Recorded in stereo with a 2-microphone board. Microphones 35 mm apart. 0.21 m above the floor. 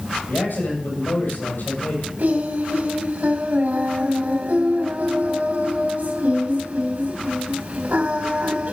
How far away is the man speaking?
About 6.5 m.